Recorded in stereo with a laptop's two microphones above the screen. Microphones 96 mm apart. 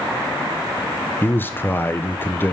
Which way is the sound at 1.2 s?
20° left (ahead or behind).